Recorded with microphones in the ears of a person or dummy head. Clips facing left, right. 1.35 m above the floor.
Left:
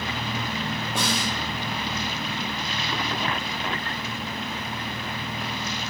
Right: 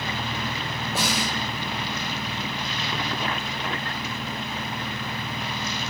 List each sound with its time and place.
0.9 s a snare drum: 10° right (ahead or behind), 0.5 m